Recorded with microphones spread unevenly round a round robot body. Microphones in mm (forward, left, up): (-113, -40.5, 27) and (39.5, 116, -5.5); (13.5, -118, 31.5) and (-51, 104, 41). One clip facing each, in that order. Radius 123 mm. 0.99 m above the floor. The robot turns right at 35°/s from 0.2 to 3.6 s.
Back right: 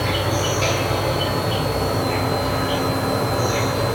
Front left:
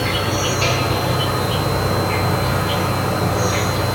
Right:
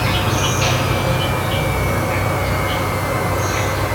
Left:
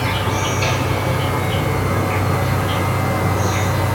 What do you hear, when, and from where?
0.0 s an insect: 20° right, 1.3 m; by 4.0 s 100° left, 1.3 m